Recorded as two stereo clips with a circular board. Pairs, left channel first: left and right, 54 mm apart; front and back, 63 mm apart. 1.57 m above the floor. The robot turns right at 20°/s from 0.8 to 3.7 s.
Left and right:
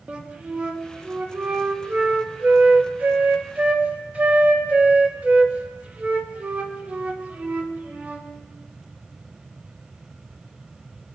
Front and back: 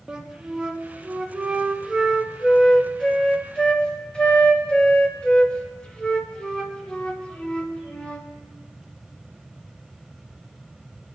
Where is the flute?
120° right, 1.0 m; by 8.3 s 60° right, 1.0 m.